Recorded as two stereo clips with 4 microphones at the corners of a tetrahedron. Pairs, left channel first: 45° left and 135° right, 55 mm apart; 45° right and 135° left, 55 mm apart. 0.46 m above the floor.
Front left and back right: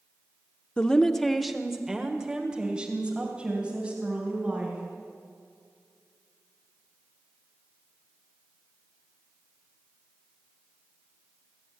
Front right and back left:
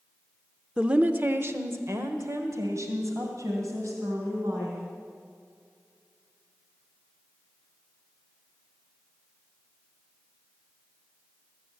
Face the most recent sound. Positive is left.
turn(degrees=155)